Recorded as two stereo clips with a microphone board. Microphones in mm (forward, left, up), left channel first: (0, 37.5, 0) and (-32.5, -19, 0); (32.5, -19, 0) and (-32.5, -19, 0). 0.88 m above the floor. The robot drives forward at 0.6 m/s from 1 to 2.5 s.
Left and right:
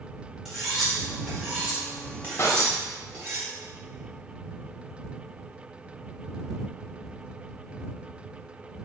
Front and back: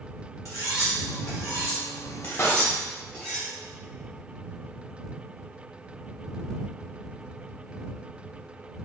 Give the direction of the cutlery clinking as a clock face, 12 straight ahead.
1 o'clock.